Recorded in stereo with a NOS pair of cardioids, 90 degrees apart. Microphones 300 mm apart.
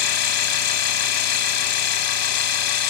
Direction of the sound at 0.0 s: 60° left.